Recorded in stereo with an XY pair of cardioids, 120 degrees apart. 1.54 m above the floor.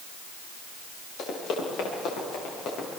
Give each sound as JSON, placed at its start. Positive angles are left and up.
{"t": 1.2, "sound": "running footsteps", "azimuth_deg": 65, "distance_m": 10.0}